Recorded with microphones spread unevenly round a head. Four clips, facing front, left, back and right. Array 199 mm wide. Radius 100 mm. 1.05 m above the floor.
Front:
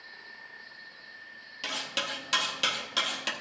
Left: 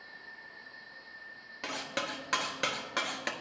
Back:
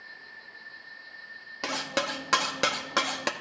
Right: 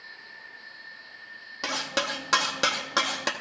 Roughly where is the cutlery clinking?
Behind right.